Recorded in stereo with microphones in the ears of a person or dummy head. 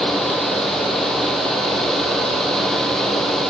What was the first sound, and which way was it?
Only background noise.